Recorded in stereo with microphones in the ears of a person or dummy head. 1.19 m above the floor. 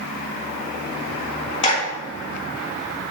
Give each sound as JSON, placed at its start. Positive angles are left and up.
{"t": 1.6, "sound": "a clap", "side_deg": 35, "distance_m": 1.8}